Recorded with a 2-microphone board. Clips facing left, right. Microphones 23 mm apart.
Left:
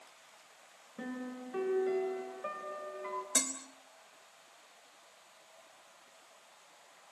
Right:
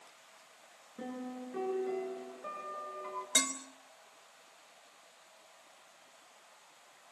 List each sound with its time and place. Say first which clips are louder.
1.0 s a piano: even; 20° left (ahead or behind), 6.5 m
3.4 s dishes clattering: right 4 dB; 65° right (ahead or behind), 3.5 m